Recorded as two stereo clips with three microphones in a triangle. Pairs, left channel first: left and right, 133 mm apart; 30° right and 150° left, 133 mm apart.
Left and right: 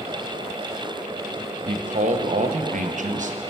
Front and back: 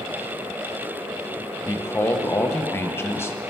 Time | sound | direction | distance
1.7 | a man speaking | 105° right | 0.6 m